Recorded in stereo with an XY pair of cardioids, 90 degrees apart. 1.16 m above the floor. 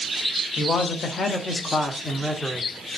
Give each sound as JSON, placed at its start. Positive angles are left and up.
{"t": 0.6, "sound": "a man speaking", "azimuth_deg": 65, "distance_m": 1.2}